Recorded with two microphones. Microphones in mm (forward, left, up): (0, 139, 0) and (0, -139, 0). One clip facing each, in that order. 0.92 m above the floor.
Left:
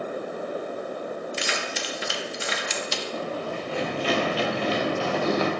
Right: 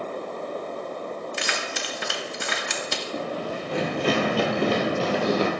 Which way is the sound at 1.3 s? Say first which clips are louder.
Left 1 dB; 60° right (ahead or behind).